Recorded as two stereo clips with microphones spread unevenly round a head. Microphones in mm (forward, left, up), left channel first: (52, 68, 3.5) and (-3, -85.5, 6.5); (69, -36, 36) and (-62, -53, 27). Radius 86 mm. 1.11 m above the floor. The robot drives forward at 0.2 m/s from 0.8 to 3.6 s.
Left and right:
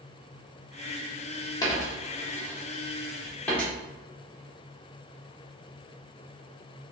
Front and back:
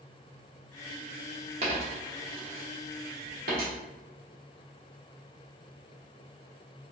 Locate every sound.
1.6 s a dropped coin: 135° left, 0.8 m; by 3.7 s 150° left, 1.1 m